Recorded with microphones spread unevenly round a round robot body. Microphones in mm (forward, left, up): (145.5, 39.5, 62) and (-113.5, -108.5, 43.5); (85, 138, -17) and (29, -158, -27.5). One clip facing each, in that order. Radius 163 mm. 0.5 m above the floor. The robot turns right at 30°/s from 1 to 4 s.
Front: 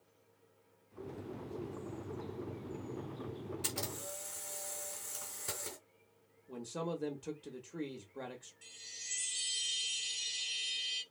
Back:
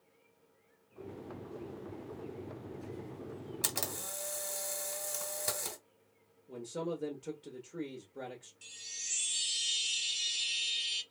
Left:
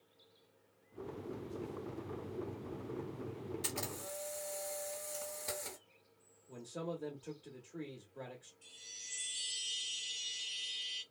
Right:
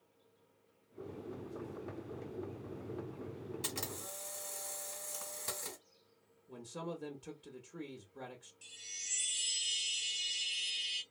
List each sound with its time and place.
3.6 s a camera shutter: straight behind, 1.2 m; by 5.8 s 170° right, 1.2 m
6.5 s a man speaking: 50° right, 0.9 m
8.6 s a chime: 95° right, 0.9 m